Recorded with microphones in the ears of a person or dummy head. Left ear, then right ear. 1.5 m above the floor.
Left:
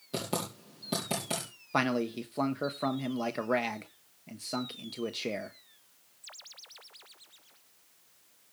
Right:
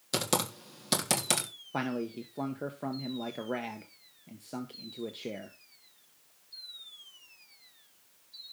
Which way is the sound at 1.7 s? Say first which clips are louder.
Left 5 dB; 25° left (ahead or behind).